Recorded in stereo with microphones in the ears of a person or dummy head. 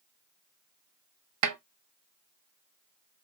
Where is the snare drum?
75° right (ahead or behind), 0.7 m.